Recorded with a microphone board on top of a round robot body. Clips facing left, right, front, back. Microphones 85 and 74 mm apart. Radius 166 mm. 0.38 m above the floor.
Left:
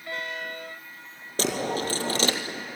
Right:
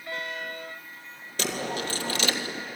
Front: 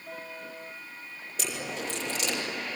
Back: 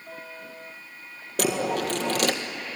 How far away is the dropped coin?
About 1.5 m.